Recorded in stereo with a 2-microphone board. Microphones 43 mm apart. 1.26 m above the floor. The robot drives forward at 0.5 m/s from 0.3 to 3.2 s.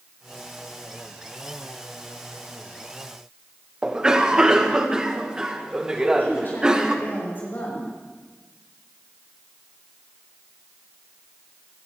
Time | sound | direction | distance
3.8 | a cough | 15° right (ahead or behind) | 1.4 m
6.0 | a woman speaking | 45° left (ahead or behind) | 6 m